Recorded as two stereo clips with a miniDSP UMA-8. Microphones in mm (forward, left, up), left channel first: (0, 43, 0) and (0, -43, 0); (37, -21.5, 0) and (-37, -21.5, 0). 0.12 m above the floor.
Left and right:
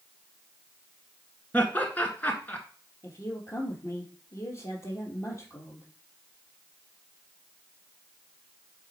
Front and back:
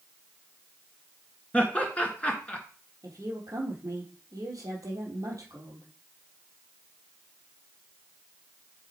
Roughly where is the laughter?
Ahead left.